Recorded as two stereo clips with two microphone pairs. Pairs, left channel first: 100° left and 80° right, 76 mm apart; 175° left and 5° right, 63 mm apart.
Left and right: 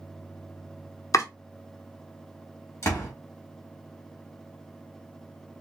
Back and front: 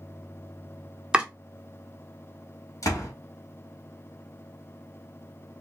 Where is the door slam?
145° left, 1.8 m.